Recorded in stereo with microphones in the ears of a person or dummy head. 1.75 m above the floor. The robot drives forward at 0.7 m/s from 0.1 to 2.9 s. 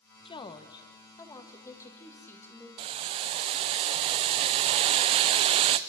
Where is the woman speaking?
25° left (ahead or behind), 1.3 m; by 2.7 s 10° left (ahead or behind), 3 m.